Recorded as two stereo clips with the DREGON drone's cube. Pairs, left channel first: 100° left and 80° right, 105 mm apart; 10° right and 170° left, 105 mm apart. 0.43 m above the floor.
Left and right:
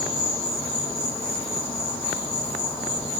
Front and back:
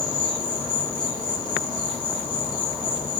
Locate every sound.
0.0 s an insect: 95° left, 1.6 m